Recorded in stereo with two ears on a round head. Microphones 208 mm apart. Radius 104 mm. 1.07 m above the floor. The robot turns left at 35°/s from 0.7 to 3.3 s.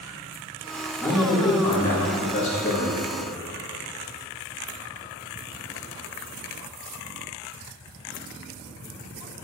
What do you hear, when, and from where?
1.0 s a man speaking: 175° left, 2.0 m; by 3.0 s 105° left, 2.0 m